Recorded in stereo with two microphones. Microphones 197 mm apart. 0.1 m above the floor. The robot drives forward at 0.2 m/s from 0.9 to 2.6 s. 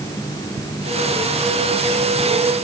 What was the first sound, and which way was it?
Only background noise.